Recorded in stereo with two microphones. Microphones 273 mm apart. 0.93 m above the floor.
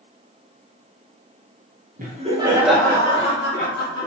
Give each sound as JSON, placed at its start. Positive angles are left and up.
{"t": 2.0, "sound": "laughter", "side_deg": -30, "distance_m": 0.8}